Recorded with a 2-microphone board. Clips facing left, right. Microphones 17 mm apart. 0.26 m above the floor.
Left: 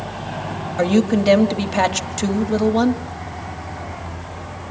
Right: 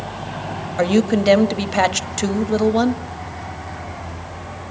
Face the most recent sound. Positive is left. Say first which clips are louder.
# even
turn(degrees=-15)  # may be behind; listen again after turning